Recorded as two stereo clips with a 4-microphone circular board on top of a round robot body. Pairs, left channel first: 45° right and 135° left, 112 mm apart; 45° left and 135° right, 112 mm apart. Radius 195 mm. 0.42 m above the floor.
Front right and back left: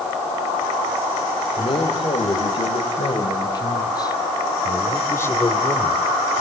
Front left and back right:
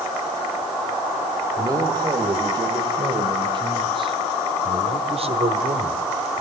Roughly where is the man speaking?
Right.